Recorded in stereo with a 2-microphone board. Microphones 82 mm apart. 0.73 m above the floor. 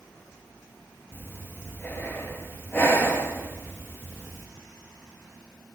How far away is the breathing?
About 0.7 m.